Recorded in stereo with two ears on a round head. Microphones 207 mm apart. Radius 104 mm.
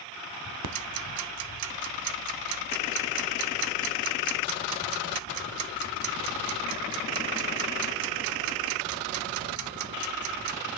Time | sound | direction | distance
0.6 | ticking | 85° right | 0.5 m